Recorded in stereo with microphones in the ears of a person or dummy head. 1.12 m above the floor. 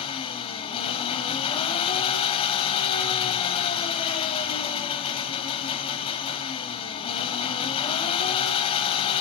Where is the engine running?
30° left (ahead or behind), 1.5 m.